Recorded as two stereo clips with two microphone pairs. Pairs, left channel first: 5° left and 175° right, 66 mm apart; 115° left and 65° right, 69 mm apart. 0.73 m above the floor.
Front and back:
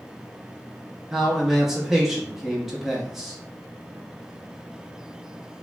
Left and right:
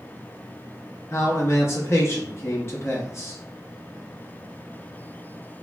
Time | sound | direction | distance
1.1 | a man speaking | 105° left | 0.8 m